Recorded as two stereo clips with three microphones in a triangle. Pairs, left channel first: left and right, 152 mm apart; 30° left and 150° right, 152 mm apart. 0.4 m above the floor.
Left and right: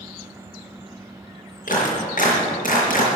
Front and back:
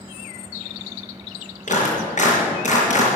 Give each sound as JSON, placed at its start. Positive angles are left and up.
{"t": 1.7, "sound": "a clap", "azimuth_deg": 65, "distance_m": 5.0}